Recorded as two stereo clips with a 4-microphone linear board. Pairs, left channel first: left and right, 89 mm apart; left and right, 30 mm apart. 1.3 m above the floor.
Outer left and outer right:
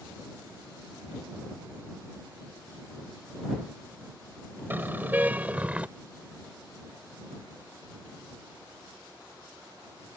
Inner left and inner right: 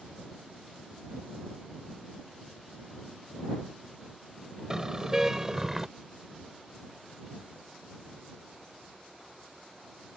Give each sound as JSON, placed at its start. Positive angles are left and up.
{"t": 4.7, "sound": "a car horn", "side_deg": -25}